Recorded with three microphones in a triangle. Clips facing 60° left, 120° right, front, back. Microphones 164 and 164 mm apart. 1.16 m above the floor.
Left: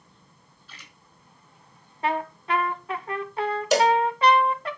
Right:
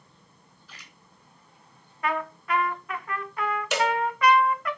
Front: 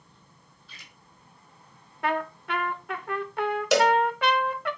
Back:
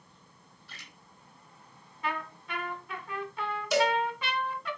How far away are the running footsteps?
I don't hear running footsteps.